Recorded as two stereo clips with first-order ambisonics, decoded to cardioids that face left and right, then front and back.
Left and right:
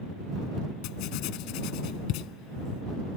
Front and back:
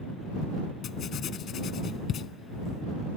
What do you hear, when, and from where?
0.8 s writing: 60° left